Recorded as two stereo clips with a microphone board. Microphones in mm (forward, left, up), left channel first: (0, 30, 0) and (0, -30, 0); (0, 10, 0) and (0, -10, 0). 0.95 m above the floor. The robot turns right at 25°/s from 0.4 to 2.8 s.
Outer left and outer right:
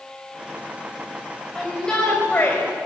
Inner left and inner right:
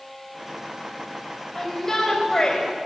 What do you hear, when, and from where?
1.6 s a shout: centre (ahead or behind), 3.5 m; by 2.6 s 30° left (ahead or behind), 3.5 m